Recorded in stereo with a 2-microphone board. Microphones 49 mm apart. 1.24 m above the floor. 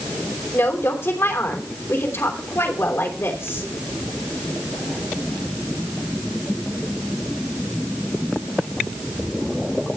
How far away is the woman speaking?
About 3.5 m.